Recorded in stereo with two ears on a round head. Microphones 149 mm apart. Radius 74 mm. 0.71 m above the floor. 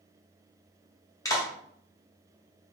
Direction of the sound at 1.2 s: 20° left (ahead or behind).